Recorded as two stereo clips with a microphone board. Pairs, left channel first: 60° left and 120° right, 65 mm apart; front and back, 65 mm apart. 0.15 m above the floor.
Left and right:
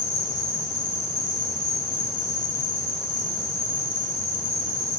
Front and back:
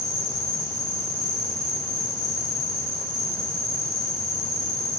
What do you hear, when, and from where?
0.0 s an insect: 55° right, 7 m